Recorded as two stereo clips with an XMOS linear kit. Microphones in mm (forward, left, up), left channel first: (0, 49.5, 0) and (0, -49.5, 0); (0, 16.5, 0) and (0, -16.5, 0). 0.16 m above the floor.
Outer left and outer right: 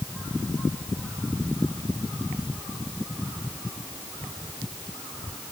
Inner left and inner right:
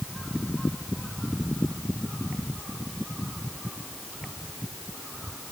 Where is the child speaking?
I don't hear a child speaking.